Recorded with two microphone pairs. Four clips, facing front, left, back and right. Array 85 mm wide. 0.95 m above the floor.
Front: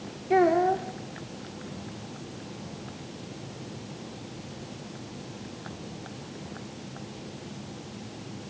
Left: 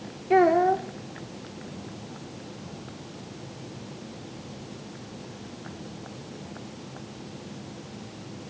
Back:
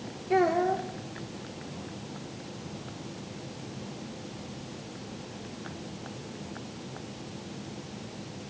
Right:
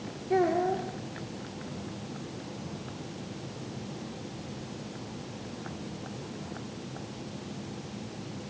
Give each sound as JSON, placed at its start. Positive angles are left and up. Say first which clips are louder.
{"t": 0.3, "sound": "a child speaking", "louder": "left 7 dB, front 3 dB", "azimuth_deg": 80, "distance_m": 1.4}